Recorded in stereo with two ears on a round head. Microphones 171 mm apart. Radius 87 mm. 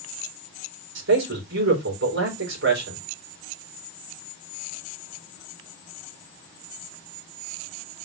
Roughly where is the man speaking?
Right.